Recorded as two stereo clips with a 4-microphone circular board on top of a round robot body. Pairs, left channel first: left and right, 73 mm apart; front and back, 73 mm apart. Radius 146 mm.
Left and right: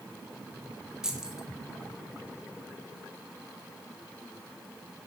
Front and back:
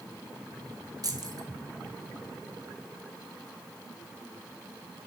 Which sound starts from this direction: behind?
Keys jangling, at 1.0 s.